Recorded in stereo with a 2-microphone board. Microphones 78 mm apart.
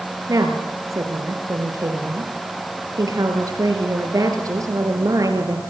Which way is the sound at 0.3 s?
45° right (ahead or behind).